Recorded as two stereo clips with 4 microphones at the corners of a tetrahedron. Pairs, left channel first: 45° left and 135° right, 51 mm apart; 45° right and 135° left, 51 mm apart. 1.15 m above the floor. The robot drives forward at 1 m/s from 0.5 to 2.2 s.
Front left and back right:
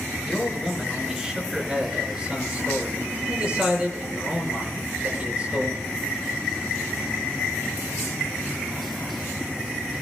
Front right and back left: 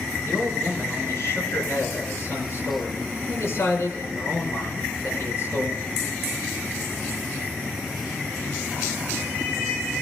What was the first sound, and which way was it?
A man speaking, 50° right.